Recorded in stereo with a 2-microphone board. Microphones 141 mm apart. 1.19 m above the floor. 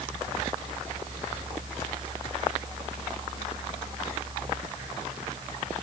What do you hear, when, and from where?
Only background noise.